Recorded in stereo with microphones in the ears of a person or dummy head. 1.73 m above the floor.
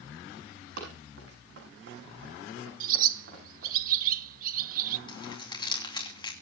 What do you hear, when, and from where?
0.8 s running footsteps: 70° right (ahead or behind), 8 m; by 3.7 s 60° right (ahead or behind), 7.5 m
2.8 s a bird: 55° right (ahead or behind), 1.0 m
5.1 s crumpling: 25° left (ahead or behind), 3 m